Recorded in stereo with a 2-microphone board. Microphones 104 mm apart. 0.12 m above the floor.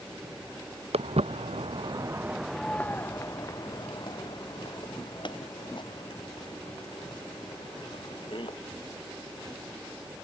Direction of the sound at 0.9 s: 85° right.